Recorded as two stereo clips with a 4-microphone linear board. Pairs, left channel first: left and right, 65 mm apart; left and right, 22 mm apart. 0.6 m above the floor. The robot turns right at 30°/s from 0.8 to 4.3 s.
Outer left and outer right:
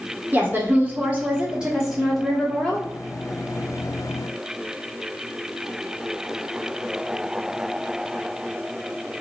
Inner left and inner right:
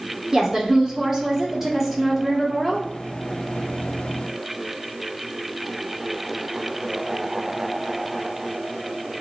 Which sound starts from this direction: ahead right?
A woman speaking, at 0.3 s.